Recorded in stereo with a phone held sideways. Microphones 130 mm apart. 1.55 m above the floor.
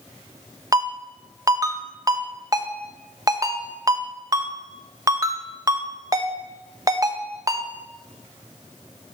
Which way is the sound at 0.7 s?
25° right (ahead or behind).